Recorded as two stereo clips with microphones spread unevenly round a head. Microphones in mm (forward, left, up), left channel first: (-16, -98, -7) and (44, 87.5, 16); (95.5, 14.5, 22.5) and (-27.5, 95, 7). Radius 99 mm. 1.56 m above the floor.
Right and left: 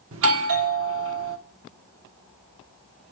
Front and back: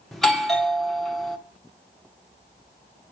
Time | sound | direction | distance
0.1 | a doorbell | 55° left | 1.2 m